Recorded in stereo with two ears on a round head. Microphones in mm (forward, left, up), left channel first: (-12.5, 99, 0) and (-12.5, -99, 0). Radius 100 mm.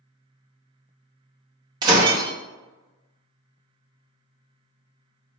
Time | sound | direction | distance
1.8 | breaking glass | 20° right (ahead or behind) | 0.9 m